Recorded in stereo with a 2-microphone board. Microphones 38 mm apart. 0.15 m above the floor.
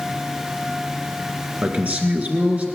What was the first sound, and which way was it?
A man speaking, 45° right (ahead or behind).